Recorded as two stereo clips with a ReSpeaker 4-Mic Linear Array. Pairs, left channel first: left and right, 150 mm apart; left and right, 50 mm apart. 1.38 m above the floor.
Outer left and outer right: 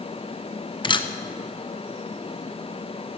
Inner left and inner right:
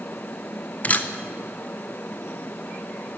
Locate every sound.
0.8 s a camera shutter: 30° left (ahead or behind), 0.6 m